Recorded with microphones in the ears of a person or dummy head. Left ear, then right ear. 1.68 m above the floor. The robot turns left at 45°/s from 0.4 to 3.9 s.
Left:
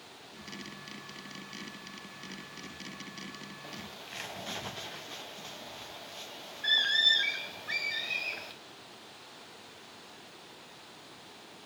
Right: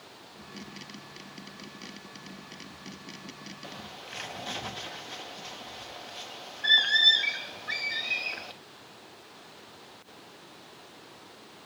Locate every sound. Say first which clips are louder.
3.6 s a bird: right 4 dB; 15° right (ahead or behind), 0.5 m; by 8.5 s 5° right (ahead or behind), 0.5 m